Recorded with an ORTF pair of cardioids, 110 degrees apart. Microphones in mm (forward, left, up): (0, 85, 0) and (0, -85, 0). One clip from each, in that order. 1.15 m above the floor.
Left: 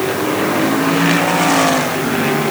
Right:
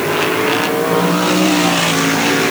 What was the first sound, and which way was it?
Only background noise.